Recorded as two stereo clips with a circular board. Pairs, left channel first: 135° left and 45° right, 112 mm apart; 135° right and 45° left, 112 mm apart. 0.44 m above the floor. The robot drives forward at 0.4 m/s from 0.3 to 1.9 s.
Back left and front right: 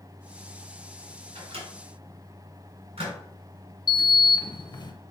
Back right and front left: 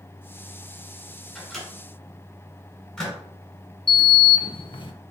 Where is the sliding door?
175° right, 0.5 m.